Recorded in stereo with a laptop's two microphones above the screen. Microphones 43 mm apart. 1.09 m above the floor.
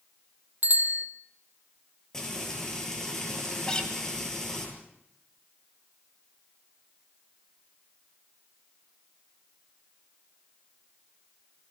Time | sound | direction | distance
0.6 | a bicycle bell | 50° right (ahead or behind) | 2.5 m
2.1 | frying | 10° left (ahead or behind) | 9 m
3.7 | a guitar | 20° left (ahead or behind) | 3 m